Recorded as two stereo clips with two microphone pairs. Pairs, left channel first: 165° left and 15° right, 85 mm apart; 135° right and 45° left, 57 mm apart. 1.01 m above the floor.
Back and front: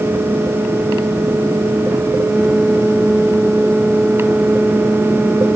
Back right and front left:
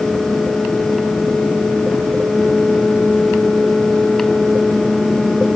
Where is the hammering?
No hammering in this recording.